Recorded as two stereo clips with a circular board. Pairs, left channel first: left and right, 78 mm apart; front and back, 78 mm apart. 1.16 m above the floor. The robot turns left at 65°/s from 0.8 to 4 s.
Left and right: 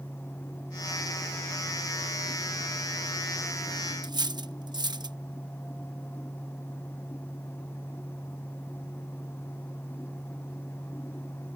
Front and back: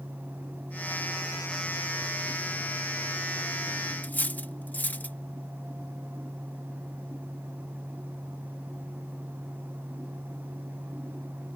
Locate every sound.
4.0 s cutlery clinking: 70° right